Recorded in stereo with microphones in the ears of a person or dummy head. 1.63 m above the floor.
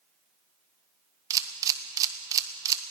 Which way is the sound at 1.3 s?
20° right (ahead or behind).